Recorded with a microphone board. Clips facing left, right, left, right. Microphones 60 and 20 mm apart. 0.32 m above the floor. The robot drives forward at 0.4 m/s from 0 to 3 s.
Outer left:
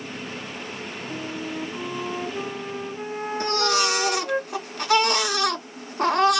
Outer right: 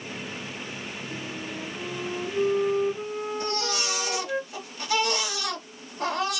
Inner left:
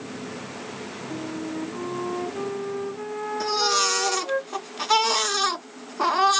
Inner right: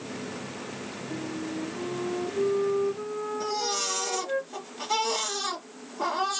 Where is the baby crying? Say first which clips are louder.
Outer left 7 dB, inner left 9 dB; 60° left (ahead or behind), 1.2 m.